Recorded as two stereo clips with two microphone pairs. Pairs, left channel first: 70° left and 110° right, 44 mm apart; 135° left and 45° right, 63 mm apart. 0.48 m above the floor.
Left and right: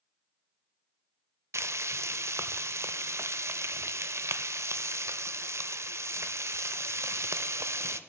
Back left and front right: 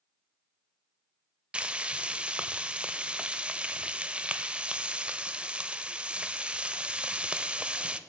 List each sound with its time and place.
1.5 s frying: 125° right, 0.5 m